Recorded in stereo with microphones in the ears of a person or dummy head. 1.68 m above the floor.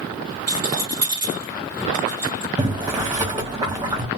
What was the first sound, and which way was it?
A rattle, 20° right (ahead or behind).